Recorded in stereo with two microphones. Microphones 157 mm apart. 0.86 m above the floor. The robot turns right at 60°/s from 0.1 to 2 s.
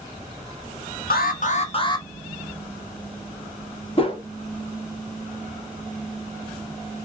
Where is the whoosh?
40° left (ahead or behind), 0.6 m.